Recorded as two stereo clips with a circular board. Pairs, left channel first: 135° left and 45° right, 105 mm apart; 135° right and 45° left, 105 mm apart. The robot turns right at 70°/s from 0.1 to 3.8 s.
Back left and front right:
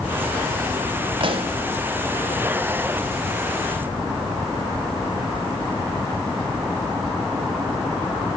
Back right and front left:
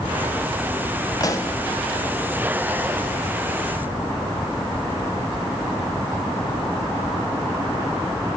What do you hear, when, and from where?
1.2 s a pop: 85° right, 0.7 m; by 1.6 s 60° right, 0.7 m